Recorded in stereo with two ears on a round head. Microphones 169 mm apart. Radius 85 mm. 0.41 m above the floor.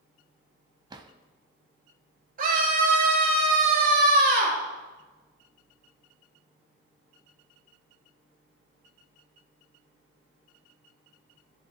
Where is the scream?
50° right (ahead or behind), 6.5 m.